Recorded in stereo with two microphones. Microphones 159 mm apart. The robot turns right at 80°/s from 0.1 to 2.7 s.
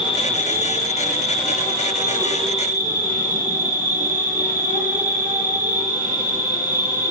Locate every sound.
0.0 s an insect: 35° left, 1.3 m; by 7.1 s 115° right, 1.3 m